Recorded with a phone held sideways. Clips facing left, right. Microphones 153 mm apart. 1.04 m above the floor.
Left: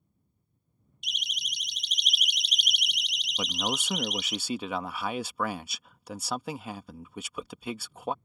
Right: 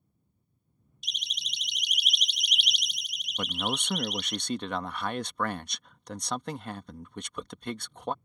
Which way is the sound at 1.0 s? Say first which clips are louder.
Left 2 dB; 35° right (ahead or behind).